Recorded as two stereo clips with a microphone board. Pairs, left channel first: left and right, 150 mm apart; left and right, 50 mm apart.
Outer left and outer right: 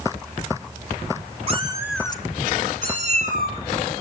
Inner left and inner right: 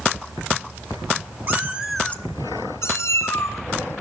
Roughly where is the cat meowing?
Right.